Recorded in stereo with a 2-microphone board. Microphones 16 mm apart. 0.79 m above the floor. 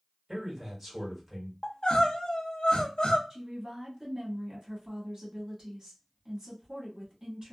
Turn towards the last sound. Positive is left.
turn(degrees=-50)  # may be behind; listen again after turning